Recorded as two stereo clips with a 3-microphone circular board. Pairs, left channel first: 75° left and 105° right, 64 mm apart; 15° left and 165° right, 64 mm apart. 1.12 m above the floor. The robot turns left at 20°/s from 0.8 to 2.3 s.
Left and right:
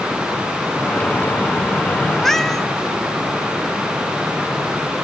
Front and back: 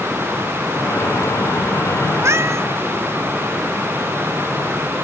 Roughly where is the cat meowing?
Behind.